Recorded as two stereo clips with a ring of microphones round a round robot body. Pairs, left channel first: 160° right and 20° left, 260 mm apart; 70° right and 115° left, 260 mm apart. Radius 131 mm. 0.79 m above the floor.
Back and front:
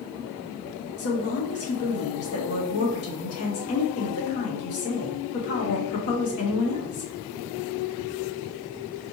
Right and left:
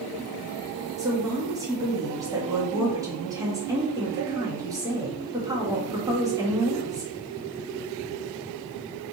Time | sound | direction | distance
1.0 | a woman speaking | 170° right | 1.2 m